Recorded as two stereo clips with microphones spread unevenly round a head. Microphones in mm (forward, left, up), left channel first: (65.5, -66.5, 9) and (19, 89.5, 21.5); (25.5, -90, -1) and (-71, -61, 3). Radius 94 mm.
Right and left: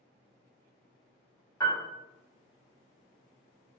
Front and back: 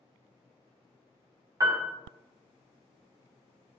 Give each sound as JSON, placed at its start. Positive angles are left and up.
{"t": 1.6, "sound": "a piano", "azimuth_deg": -145, "distance_m": 0.7}